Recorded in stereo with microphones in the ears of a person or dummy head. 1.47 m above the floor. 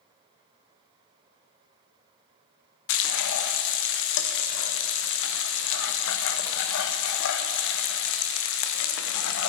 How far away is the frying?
About 0.6 m.